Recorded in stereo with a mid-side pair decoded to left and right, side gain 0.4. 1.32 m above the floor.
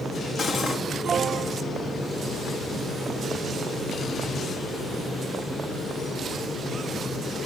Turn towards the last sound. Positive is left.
turn(degrees=50)